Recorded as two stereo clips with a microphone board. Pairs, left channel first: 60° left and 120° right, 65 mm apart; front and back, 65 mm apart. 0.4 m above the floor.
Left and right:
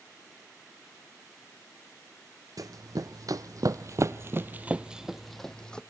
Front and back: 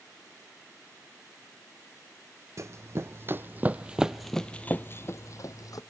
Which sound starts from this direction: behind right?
Running footsteps, at 2.6 s.